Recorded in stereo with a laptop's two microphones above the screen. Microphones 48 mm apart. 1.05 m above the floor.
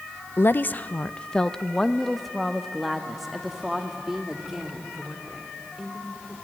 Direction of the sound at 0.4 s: 55° left (ahead or behind).